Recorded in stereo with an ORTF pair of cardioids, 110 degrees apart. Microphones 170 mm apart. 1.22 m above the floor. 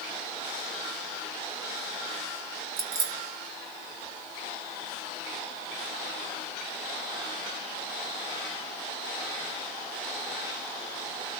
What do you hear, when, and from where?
2.8 s keys jangling: 40° right, 1.2 m